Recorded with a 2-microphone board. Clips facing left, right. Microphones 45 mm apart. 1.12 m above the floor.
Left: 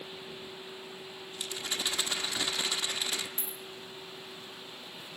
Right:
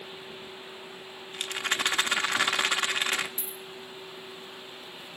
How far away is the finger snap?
No finger snap in this recording.